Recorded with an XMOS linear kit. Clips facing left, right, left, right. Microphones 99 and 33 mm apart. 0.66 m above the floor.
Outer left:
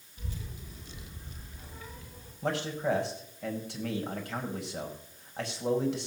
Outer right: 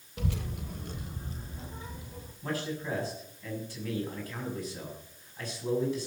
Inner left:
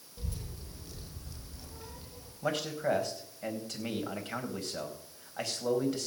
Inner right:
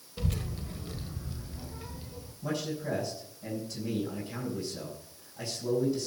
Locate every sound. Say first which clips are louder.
0.2 s a child speaking: outer right 9 dB, inner right 9 dB; 80° right, 1.5 m; by 2.3 s 15° right (ahead or behind), 2.5 m
2.4 s a man speaking: outer left 4 dB, inner left 3 dB; 70° left (ahead or behind), 4.5 m